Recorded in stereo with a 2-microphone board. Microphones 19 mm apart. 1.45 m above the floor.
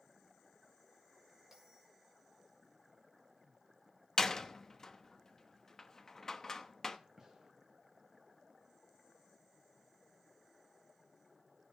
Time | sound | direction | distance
1.5 | a bell | 20° right (ahead or behind) | 5 m
4.2 | a door slam | 25° left (ahead or behind) | 1.1 m
7.2 | a gunshot | 30° right (ahead or behind) | 8.5 m